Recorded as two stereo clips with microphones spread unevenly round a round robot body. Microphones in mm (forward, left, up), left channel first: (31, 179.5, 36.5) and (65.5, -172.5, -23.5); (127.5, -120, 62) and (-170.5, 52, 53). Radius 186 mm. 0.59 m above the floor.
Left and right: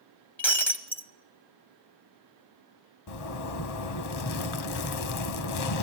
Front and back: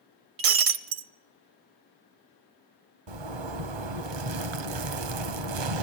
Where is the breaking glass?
Straight behind, 1.1 m.